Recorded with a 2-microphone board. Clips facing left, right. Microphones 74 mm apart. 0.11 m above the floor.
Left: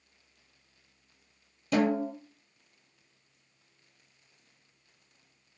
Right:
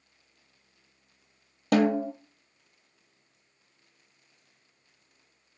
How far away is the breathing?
No breathing in this recording.